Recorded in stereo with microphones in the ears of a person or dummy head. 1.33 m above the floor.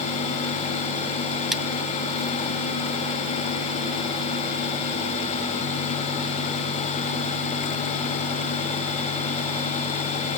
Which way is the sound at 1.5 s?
Centre (ahead or behind).